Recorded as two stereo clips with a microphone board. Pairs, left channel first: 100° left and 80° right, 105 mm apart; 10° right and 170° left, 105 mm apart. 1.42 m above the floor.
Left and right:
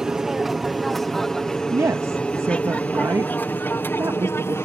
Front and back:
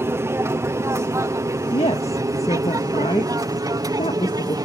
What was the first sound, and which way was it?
An aircraft, 160° right.